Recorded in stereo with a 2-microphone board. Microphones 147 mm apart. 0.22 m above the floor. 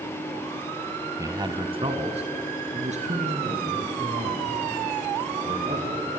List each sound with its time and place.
1.2 s a man speaking: 20° right (ahead or behind), 1.4 m; by 6.1 s 60° right (ahead or behind), 8 m